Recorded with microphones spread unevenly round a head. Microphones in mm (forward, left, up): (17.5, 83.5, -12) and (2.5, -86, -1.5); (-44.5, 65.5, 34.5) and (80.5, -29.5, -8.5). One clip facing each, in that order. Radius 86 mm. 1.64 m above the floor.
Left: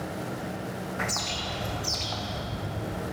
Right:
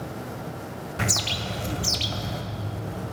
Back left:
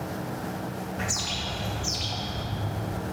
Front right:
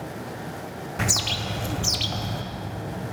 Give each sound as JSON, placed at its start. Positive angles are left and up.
{"t": 1.0, "sound": "a bird", "azimuth_deg": -70, "distance_m": 0.6}